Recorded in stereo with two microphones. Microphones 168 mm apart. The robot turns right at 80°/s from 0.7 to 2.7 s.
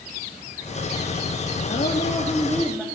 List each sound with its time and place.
1.6 s a woman speaking: 95° left, 2 m; by 2.9 s 175° right, 2 m